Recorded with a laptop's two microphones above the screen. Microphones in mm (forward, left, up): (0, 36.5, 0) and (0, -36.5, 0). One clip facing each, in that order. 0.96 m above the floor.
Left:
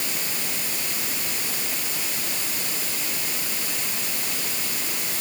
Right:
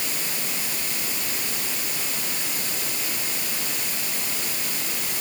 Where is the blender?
I don't hear a blender.